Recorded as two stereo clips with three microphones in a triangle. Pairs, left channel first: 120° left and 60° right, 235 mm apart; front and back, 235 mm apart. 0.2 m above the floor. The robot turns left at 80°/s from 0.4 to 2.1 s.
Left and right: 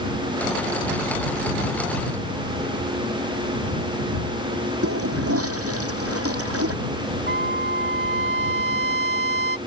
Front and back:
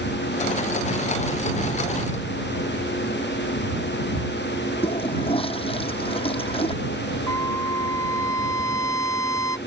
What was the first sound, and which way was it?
A toilet flushing, 65° right.